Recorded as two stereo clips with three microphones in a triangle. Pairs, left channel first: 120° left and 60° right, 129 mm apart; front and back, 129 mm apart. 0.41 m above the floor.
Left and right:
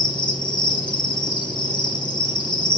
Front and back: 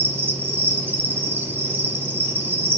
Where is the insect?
120° left, 2.5 m.